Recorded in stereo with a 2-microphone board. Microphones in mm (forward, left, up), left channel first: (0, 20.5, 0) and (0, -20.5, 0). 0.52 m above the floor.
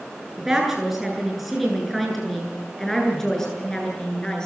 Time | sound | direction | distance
0.4 | a woman speaking | 10° right (ahead or behind) | 8.5 m